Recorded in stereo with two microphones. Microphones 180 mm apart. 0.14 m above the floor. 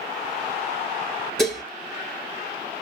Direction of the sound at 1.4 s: 5° left (ahead or behind).